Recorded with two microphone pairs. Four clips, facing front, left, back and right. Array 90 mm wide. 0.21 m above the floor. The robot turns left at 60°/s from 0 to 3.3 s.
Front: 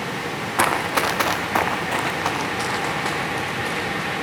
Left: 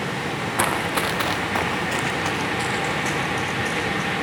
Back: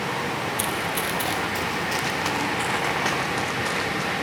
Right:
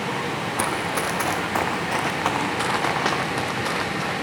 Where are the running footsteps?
10° left, 0.9 m; by 4.1 s 95° right, 3.5 m.